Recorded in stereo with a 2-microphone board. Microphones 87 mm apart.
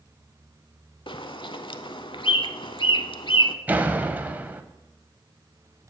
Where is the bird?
70° left (ahead or behind), 0.5 m.